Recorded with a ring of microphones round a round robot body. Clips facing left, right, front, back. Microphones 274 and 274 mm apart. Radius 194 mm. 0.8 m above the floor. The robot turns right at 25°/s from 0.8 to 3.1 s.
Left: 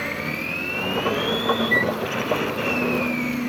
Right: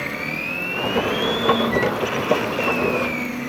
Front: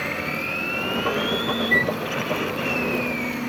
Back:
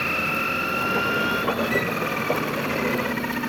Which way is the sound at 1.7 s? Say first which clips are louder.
Right 3 dB, front 1 dB; 95° left.